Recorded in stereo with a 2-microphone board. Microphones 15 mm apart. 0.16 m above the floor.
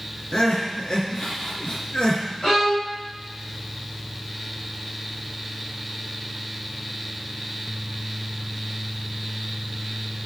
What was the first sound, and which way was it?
Crying, 55° left (ahead or behind).